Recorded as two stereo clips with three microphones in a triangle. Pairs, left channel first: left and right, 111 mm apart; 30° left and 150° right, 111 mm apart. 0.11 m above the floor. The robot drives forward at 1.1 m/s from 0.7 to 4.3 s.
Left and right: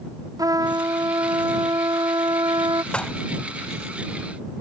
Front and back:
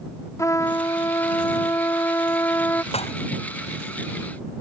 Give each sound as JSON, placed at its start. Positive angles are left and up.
{"t": 0.4, "sound": "a trumpet", "azimuth_deg": -35}
{"t": 2.9, "sound": "dishes clattering", "azimuth_deg": 10}